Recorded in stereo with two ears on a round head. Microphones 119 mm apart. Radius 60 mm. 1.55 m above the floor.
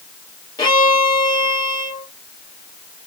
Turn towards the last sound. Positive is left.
turn(degrees=30)  # may be behind; listen again after turning